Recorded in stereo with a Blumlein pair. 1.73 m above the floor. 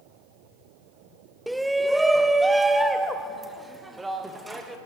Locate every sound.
1.5 s a shout: straight ahead, 0.8 m; by 4.8 s 10° right, 3 m